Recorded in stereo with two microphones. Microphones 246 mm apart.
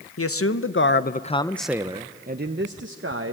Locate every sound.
0.2 s a man speaking: 70° left (ahead or behind), 0.9 m; by 3.3 s 60° right (ahead or behind), 1.1 m